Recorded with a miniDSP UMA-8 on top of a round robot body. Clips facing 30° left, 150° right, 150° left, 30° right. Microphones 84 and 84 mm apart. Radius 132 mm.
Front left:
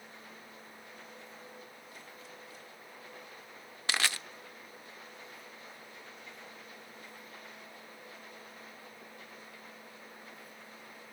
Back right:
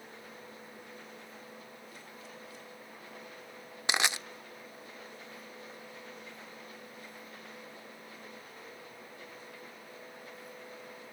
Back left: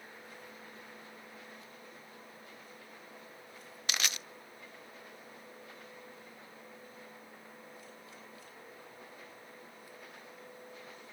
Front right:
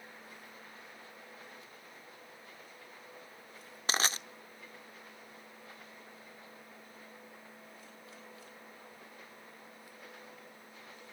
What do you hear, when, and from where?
3.9 s crushing: 80° right, 0.7 m